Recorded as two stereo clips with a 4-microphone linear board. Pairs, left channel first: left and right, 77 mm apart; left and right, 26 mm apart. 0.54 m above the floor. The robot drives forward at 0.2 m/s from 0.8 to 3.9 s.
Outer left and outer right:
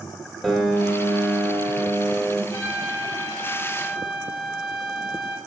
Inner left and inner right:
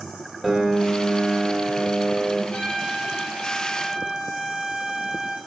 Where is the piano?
5° left (ahead or behind), 1.4 m; by 2.4 s centre (ahead or behind), 1.7 m.